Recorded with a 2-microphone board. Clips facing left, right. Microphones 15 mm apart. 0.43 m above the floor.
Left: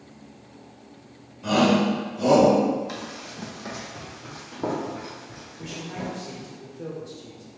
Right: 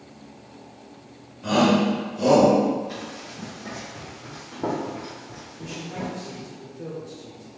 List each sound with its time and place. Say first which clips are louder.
1.4 s a shout: right 1 dB; centre (ahead or behind), 1.5 m; by 2.5 s 40° right (ahead or behind), 1.7 m
2.9 s running footsteps: even; 50° left (ahead or behind), 1.2 m; by 6.4 s 25° right (ahead or behind), 1.7 m
5.6 s a man speaking: right 1 dB; 25° left (ahead or behind), 1.3 m